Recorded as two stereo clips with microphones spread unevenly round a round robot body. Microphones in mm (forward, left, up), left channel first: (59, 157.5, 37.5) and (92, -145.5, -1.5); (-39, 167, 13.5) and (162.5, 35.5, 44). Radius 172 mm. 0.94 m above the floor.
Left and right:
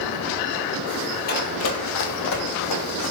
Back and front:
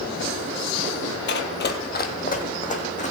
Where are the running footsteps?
125° left, 1.1 m; by 3.1 s 85° left, 3 m.